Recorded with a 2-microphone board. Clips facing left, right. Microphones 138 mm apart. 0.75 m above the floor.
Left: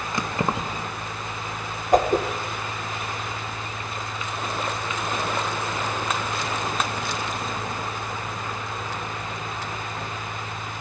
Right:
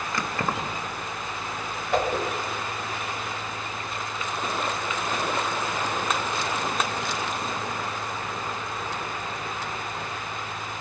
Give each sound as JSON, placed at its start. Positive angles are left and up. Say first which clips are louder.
{"t": 0.1, "sound": "keys jangling", "louder": "left 3 dB", "side_deg": 20, "distance_m": 0.6}
{"t": 1.9, "sound": "a whoosh", "louder": "left 6 dB", "side_deg": 45, "distance_m": 1.0}